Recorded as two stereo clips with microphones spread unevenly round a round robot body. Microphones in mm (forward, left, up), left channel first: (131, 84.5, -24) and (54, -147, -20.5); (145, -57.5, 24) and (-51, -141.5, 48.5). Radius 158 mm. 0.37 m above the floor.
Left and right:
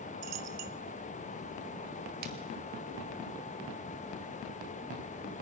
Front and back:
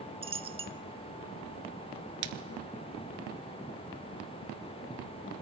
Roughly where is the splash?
Behind.